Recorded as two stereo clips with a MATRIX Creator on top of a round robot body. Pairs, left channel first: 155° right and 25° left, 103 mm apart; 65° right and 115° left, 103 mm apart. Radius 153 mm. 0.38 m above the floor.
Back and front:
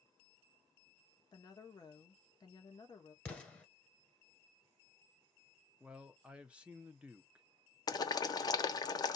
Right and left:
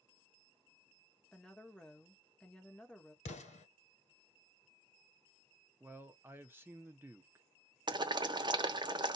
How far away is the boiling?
About 1.0 m.